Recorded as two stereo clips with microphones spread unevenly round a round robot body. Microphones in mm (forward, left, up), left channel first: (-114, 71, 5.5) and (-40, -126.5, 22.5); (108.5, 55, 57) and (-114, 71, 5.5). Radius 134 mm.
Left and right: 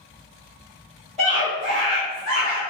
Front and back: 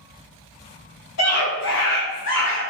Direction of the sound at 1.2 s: 10° left.